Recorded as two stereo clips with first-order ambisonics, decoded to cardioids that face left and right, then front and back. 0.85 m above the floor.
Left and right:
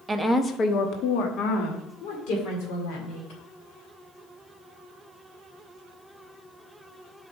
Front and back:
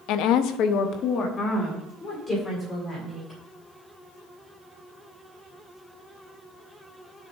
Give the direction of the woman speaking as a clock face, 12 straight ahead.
12 o'clock.